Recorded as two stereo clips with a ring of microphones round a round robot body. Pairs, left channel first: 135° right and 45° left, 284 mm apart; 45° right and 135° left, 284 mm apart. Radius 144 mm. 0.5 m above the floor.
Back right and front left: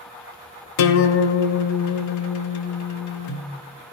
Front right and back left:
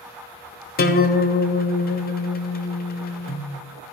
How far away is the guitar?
About 1.1 m.